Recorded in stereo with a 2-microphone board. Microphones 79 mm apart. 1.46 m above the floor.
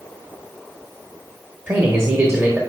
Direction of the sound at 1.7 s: 30° right (ahead or behind).